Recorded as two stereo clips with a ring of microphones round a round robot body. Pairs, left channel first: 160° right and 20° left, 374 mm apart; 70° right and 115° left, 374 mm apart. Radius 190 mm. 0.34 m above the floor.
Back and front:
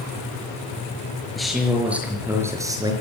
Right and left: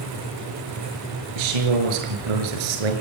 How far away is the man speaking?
About 5.5 m.